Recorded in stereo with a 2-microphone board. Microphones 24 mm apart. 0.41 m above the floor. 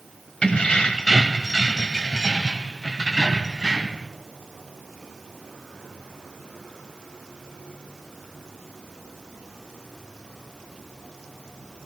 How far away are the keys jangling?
About 1.3 m.